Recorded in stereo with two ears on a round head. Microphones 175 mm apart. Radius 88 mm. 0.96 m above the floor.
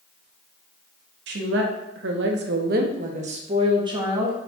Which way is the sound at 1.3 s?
60° right (ahead or behind).